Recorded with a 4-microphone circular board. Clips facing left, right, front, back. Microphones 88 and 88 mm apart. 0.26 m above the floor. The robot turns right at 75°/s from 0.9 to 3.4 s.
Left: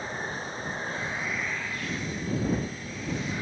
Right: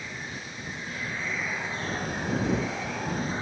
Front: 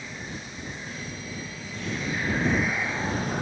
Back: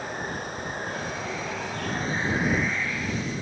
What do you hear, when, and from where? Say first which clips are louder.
0.0 s running water: left 5 dB, back 6 dB; 145° left; by 3.4 s 30° right